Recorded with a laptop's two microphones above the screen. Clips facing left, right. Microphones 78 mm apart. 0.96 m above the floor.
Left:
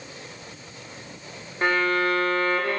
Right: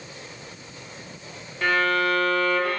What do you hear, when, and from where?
1.6 s a violin: 30° left (ahead or behind), 0.6 m